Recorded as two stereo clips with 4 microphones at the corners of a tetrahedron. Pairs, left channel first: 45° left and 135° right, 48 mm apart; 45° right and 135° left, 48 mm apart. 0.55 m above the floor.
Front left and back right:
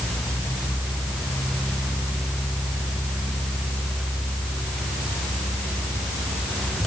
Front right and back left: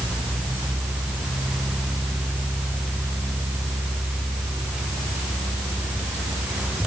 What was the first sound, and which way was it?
Only background noise.